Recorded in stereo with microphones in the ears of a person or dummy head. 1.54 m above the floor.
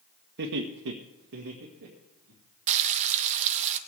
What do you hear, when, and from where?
0.4 s laughter: 60° right (ahead or behind), 1.2 m; by 2.4 s 40° right (ahead or behind), 3 m
2.7 s frying: 40° right (ahead or behind), 0.9 m